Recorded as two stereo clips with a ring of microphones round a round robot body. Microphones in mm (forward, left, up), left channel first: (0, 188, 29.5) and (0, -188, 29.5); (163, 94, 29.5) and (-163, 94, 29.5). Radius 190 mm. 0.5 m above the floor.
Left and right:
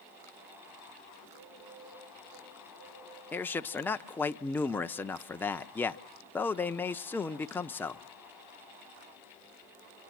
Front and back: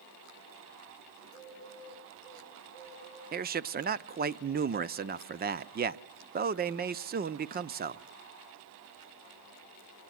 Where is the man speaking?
170° left, 0.7 m.